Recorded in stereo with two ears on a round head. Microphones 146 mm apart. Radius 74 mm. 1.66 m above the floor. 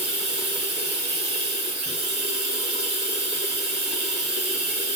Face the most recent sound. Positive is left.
turn(degrees=-65)  # may be behind; listen again after turning